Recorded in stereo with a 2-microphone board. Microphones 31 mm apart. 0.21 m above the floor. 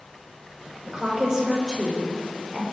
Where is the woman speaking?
20° right (ahead or behind), 7.5 m; by 2.6 s 35° right (ahead or behind), 5.5 m.